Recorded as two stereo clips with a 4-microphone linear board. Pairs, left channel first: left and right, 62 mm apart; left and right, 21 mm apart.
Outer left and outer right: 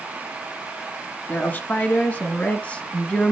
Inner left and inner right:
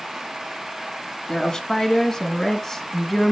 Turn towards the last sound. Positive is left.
turn(degrees=15)  # may be behind; listen again after turning